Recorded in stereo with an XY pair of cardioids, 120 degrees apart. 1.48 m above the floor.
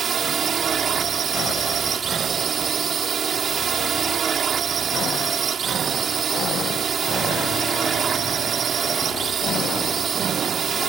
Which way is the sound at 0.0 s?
45° right.